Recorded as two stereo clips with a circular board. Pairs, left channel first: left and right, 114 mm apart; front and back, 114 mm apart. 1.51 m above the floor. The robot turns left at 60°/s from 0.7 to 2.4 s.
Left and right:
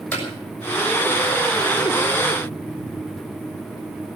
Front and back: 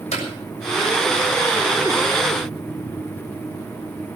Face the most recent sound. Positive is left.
turn(degrees=-90)